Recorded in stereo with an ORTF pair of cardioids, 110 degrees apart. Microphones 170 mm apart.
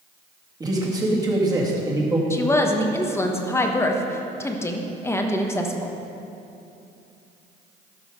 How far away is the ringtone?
No ringtone in this recording.